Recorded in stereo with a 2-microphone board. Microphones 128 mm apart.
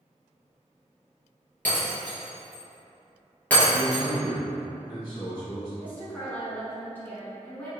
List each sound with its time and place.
1.6 s breaking glass: 15° left (ahead or behind), 1.9 m
3.7 s a man speaking: 35° left (ahead or behind), 1.6 m
5.8 s a woman speaking: 15° left (ahead or behind), 1.4 m